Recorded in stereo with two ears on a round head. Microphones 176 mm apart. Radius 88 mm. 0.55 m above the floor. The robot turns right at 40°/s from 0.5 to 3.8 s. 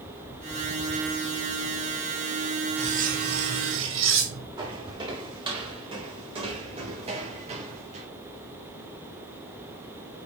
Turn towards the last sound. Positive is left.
turn(degrees=-35)  # may be behind; listen again after turning